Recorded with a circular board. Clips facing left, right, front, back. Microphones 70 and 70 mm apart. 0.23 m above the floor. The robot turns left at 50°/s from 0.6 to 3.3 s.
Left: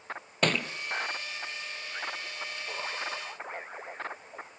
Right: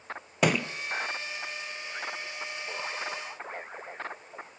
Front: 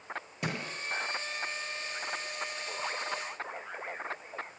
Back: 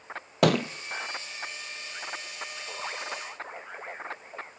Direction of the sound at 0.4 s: 170° right.